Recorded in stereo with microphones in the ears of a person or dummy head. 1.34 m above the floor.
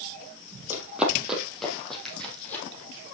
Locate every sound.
0.7 s running footsteps: 5° right (ahead or behind), 3 m; by 2.6 s 15° left (ahead or behind), 3.5 m